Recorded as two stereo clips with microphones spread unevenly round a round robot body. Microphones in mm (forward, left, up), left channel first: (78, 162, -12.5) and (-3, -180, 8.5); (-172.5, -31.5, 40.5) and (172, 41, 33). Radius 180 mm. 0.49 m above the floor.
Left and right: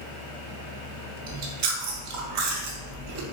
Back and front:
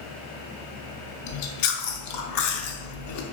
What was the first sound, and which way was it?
Chewing, 140° right.